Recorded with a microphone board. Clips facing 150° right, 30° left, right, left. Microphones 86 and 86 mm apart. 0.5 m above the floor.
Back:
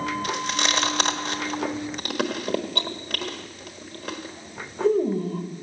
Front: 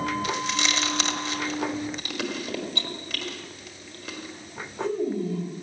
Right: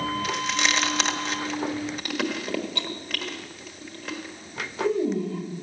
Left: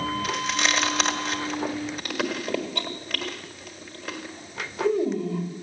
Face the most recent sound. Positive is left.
turn(degrees=175)